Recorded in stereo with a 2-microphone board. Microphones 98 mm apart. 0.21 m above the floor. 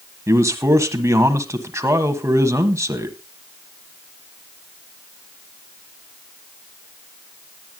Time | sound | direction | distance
0.3 | a man speaking | 30° right (ahead or behind) | 1.4 m